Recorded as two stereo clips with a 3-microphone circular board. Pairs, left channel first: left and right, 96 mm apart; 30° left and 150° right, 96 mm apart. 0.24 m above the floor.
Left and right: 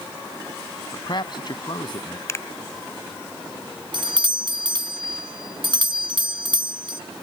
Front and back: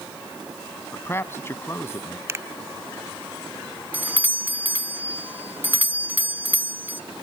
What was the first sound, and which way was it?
A man speaking, 85° left.